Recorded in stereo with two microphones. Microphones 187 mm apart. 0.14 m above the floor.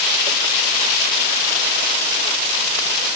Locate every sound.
Only background noise.